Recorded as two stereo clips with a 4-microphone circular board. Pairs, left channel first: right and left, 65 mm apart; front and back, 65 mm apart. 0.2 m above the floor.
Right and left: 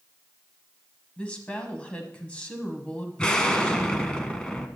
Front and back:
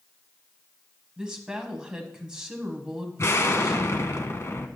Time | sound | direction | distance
1.2 | a woman speaking | 125° right | 1.2 m
3.2 | an explosion | 20° right | 0.9 m